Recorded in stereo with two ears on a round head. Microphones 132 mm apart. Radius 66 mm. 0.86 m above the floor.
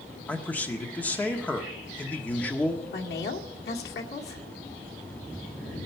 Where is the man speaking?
10° left (ahead or behind), 1.4 m.